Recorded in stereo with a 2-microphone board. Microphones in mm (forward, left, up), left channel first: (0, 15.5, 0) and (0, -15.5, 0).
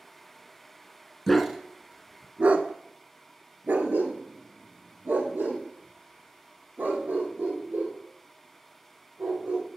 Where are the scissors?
No scissors in this recording.